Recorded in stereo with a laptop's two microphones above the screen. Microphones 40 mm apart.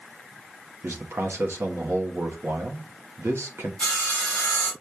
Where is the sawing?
15° left (ahead or behind), 2.5 m.